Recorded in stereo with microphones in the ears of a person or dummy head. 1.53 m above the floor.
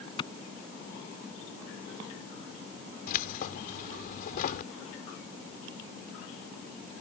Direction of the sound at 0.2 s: 30° left (ahead or behind).